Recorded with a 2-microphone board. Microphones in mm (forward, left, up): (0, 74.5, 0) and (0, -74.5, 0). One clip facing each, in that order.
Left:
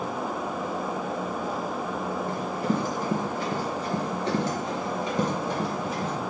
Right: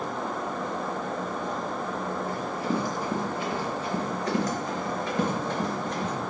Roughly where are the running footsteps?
Left.